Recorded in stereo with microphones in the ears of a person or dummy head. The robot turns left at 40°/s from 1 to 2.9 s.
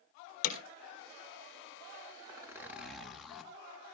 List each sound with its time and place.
0.4 s hammering: 55° left (ahead or behind), 4 m
2.3 s a zipper: 25° right (ahead or behind), 1.5 m; by 3.5 s 5° right (ahead or behind), 1.5 m